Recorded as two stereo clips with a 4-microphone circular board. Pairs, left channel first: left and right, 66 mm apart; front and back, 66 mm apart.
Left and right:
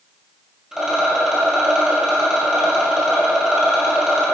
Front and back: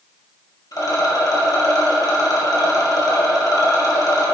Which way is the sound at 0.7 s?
10° right.